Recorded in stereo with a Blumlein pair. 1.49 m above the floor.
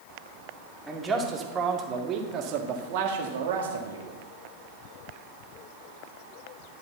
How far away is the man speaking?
About 1.9 m.